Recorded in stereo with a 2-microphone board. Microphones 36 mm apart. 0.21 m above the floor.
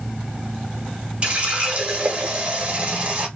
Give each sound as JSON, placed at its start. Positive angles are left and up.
{"t": 1.2, "sound": "a running tap", "side_deg": -30, "distance_m": 0.9}